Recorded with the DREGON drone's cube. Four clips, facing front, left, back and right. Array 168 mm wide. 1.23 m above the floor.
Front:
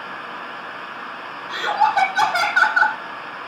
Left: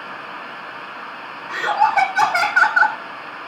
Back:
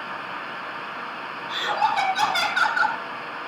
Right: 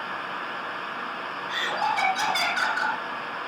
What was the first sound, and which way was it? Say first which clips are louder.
Laughter: left 10 dB, front 5 dB; 55° left.